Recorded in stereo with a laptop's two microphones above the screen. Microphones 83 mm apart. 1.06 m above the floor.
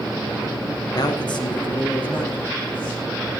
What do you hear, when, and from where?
0.9 s a man speaking: 50° left (ahead or behind), 1.1 m; by 3.0 s 70° left (ahead or behind), 3.5 m